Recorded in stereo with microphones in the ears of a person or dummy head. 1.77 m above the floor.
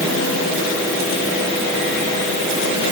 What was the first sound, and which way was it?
Only background noise.